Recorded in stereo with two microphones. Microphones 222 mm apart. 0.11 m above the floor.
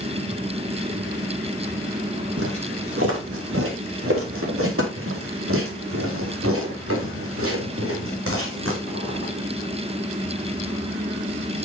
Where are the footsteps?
85° right, 3.5 m.